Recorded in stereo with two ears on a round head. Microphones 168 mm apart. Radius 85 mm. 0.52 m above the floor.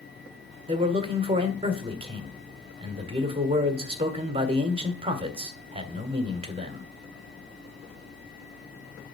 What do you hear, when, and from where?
0.7 s a man speaking: 30° right (ahead or behind), 1.5 m